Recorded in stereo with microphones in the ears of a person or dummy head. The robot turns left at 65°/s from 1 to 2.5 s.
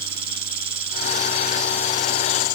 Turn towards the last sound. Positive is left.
turn(degrees=115)